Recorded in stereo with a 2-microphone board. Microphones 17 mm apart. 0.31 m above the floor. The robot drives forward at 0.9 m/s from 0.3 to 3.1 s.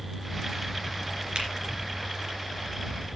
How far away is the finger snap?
About 3 m.